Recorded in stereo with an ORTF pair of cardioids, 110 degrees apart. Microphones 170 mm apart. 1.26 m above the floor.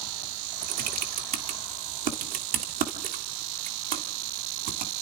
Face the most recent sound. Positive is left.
turn(degrees=-60)